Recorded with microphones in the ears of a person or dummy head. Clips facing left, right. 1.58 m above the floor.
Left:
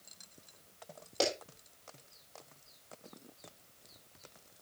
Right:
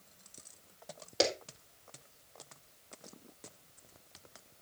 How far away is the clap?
About 3.5 m.